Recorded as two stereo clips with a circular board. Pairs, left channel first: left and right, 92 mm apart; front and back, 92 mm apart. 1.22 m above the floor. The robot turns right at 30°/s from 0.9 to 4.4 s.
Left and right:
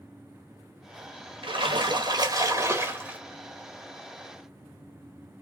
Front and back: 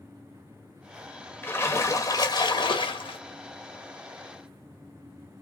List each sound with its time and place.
1.4 s a splash: 65° right, 1.1 m; by 3.2 s 15° right, 1.1 m